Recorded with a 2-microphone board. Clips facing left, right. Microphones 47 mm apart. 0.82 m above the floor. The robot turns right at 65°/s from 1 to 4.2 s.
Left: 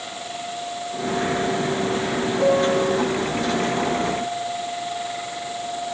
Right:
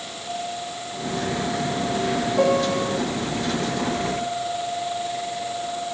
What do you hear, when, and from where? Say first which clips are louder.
2.4 s a piano: left 2 dB; 95° right, 1.2 m; by 3.0 s 60° right, 1.2 m